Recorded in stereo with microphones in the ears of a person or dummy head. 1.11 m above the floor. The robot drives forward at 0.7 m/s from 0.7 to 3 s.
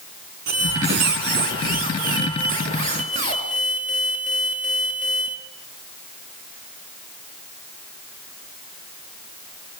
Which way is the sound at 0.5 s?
60° right (ahead or behind).